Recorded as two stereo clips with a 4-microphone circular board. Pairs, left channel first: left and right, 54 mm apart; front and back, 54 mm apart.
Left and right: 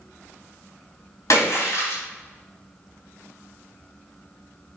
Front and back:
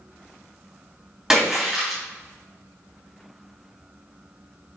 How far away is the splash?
About 4 m.